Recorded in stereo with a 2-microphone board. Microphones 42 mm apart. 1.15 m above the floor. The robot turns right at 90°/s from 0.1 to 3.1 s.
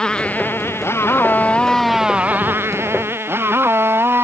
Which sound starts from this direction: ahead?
A motorcycle, at 0.0 s.